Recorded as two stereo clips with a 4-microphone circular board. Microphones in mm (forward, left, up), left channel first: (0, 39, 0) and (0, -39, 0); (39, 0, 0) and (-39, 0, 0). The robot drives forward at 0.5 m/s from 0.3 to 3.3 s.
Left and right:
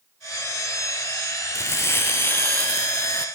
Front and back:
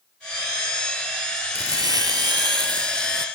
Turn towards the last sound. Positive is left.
turn(degrees=165)